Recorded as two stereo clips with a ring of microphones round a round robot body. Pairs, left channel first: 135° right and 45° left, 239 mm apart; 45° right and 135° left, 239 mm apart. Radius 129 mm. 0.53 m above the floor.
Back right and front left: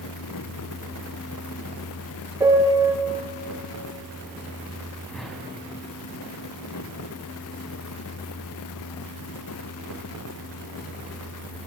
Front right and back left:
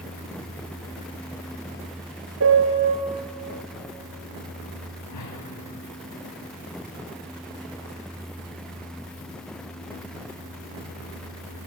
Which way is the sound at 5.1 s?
45° right.